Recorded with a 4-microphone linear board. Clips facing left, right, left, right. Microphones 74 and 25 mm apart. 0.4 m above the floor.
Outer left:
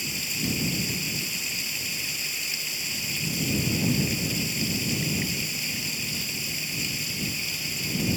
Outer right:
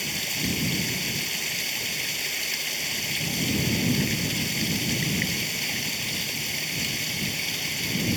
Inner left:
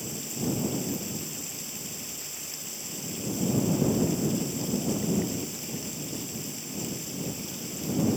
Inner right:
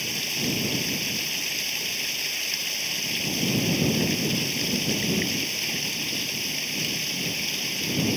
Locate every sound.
0.0 s running water: 60° right (ahead or behind)